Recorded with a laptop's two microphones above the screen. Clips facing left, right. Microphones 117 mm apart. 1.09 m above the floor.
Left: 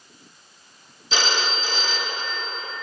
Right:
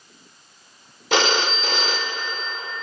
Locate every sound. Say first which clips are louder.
1.1 s a phone ringing: right 5 dB; 60° right (ahead or behind), 0.8 m